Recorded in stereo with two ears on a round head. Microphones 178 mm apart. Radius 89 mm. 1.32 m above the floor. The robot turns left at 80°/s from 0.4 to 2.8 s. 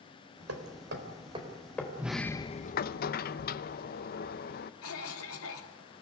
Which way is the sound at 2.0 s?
165° right.